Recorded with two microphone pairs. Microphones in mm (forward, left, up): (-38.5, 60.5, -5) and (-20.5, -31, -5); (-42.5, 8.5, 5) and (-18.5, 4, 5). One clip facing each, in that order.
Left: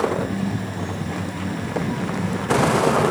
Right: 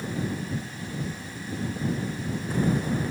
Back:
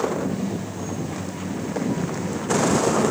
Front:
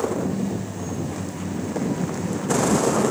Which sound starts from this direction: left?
A vehicle, at 0.0 s.